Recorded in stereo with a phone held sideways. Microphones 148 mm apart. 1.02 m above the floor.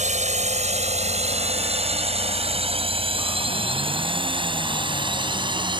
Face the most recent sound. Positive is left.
turn(degrees=-30)  # may be behind; listen again after turning